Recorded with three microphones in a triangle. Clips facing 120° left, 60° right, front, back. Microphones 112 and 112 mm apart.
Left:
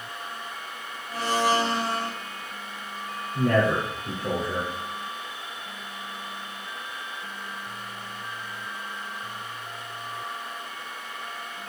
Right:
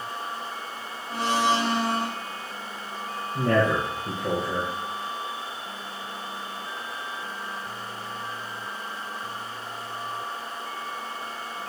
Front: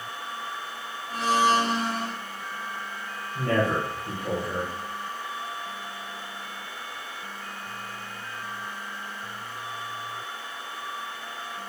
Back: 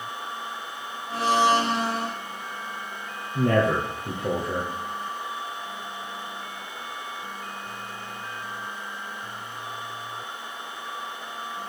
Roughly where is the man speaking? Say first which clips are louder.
Even, back 3 dB; behind right.